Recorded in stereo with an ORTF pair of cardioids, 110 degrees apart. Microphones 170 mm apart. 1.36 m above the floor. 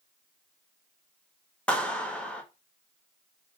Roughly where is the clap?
Ahead.